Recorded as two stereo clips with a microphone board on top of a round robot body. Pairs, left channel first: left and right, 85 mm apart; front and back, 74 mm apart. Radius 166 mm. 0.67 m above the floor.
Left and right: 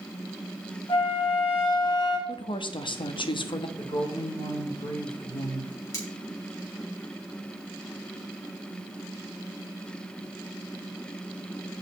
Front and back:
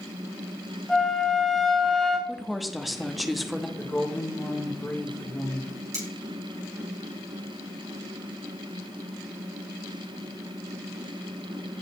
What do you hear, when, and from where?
0.9 s a flute: 85° left, 2.5 m
2.3 s a woman speaking: 90° left, 1.2 m
3.8 s a woman speaking: 70° left, 3 m
5.9 s cutlery clinking: 140° left, 3.5 m